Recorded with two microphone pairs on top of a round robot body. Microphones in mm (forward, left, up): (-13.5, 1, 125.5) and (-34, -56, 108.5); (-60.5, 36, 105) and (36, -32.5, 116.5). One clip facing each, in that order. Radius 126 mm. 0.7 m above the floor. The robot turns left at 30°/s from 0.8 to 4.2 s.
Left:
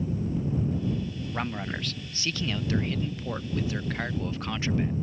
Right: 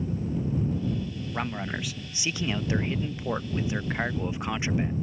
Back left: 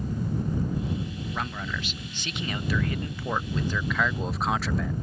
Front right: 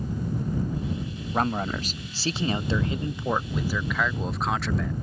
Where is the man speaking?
50° right; by 4.9 s 135° right.